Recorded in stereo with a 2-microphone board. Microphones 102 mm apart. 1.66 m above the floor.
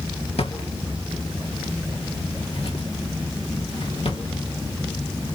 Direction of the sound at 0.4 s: 70° left (ahead or behind).